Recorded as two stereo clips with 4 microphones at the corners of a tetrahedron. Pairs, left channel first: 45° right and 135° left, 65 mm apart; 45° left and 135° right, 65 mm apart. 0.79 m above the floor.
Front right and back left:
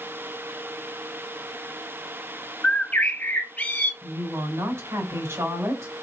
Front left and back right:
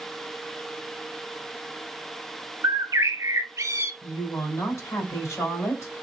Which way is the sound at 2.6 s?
100° right.